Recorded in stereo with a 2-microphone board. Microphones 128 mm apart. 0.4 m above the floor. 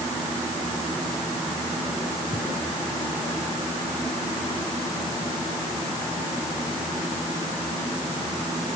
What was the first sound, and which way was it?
Only background noise.